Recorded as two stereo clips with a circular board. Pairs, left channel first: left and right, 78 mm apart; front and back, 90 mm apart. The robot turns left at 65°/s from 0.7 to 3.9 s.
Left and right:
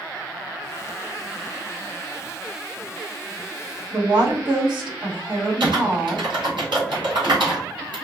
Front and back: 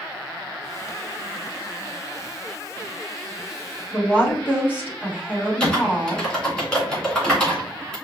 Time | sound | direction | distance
3.9 | a woman speaking | 75° right | 1.9 m
5.6 | typing on a keyboard | 80° right | 2.5 m